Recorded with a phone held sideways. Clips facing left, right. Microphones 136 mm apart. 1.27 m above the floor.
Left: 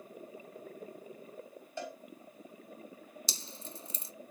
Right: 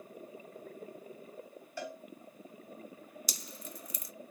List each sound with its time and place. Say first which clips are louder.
1.8 s a cowbell: even; 20° left (ahead or behind), 3.5 m
3.3 s dripping: even; 30° left (ahead or behind), 0.6 m